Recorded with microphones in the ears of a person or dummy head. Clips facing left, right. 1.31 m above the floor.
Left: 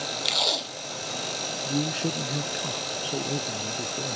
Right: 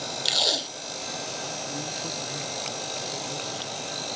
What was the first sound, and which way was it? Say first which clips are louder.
Tape being pulled: right 1 dB; 10° right (ahead or behind).